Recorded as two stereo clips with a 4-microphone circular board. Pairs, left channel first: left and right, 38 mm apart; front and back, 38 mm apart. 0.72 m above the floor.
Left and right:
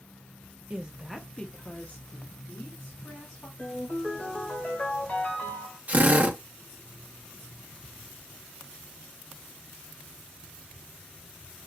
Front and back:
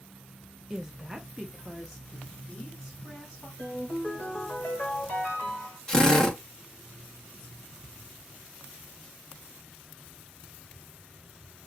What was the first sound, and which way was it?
A woman speaking, 110° right.